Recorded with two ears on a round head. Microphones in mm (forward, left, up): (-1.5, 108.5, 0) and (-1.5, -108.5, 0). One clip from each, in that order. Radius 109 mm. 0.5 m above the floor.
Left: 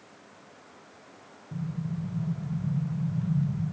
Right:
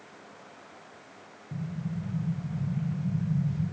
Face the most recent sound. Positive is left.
turn(degrees=-55)  # may be behind; listen again after turning